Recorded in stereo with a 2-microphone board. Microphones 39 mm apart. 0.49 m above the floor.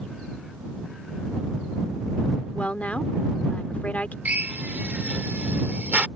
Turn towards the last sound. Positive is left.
turn(degrees=-45)  # may be behind; listen again after turning